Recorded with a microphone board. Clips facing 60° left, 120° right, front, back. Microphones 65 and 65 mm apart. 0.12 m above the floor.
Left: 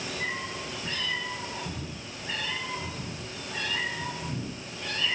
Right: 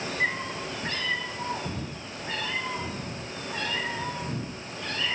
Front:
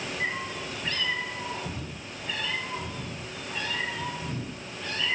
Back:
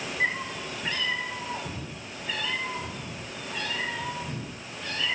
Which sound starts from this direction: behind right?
A cat meowing, at 0.2 s.